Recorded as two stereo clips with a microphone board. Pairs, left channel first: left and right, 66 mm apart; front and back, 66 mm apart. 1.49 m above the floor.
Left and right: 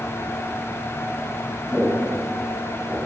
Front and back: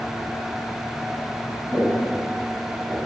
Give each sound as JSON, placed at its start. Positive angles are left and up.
{"t": 1.7, "sound": "footsteps", "azimuth_deg": 160, "distance_m": 1.8}